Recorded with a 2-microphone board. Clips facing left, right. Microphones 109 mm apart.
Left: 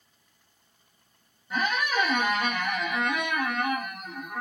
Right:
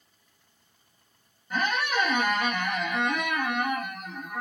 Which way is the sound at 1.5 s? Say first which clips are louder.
Even; 5° left (ahead or behind).